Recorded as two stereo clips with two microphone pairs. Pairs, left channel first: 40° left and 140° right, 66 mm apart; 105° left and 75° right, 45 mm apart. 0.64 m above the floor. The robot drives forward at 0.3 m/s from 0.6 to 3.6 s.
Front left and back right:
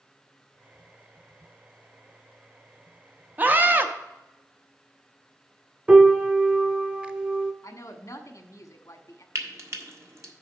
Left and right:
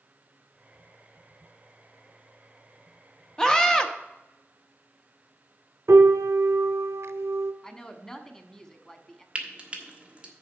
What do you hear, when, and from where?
3.4 s a scream: 170° left, 0.7 m; by 3.9 s 175° left, 0.8 m
5.9 s a piano: 65° right, 0.6 m
7.6 s a woman speaking: 40° left, 1.0 m
9.3 s frying: 135° right, 1.3 m